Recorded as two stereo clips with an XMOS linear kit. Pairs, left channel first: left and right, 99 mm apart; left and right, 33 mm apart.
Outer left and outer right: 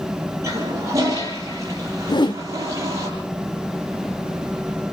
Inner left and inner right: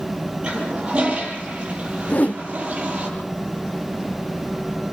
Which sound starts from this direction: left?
A whoosh, at 2.1 s.